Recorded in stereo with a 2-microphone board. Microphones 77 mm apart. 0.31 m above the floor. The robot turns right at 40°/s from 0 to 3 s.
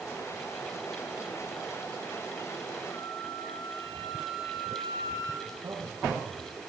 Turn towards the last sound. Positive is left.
turn(degrees=-50)  # may be behind; listen again after turning